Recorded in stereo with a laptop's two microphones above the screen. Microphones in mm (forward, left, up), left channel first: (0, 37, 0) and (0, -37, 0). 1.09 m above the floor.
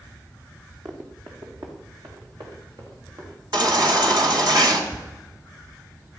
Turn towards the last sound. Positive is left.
turn(degrees=-55)  # may be behind; listen again after turning